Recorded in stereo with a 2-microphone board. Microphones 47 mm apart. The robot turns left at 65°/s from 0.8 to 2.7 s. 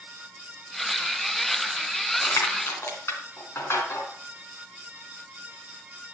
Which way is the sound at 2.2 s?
80° left.